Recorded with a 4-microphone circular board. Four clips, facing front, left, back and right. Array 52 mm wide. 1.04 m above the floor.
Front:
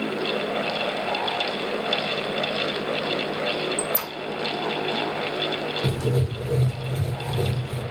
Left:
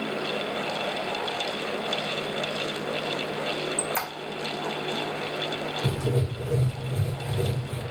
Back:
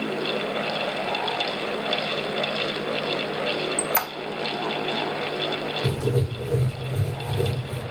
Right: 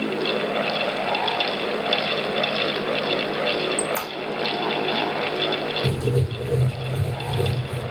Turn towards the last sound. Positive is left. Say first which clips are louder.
# right 4 dB, back 1 dB
turn(degrees=-10)